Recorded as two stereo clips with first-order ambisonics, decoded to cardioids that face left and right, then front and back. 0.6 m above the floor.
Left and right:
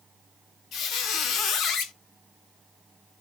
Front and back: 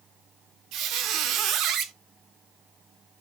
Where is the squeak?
140° left, 0.5 m.